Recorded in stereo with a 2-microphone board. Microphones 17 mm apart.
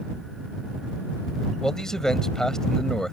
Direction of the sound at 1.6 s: 30° left (ahead or behind).